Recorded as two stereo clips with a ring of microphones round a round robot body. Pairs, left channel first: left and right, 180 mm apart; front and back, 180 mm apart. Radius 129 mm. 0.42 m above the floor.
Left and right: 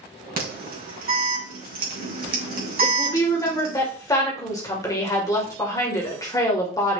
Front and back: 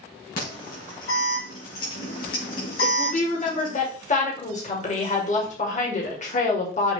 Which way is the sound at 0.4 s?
55° right.